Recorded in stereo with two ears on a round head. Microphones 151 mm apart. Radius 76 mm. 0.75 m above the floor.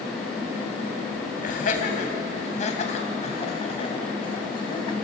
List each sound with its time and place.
1.4 s laughter: 55° left (ahead or behind), 4 m; by 5.0 s 30° left (ahead or behind), 4 m